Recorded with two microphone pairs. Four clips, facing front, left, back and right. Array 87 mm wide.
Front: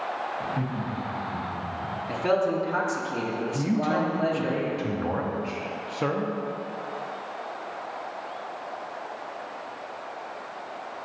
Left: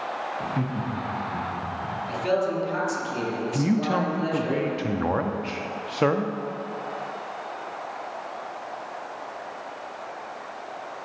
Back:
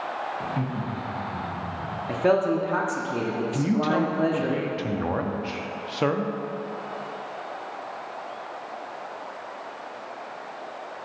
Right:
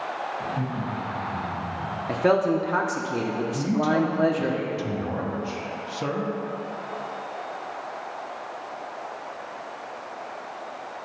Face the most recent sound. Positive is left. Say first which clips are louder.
# even, back 2 dB
turn(degrees=110)